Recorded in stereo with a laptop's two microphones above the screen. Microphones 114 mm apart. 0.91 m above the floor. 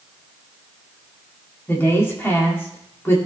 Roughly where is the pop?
No pop in this recording.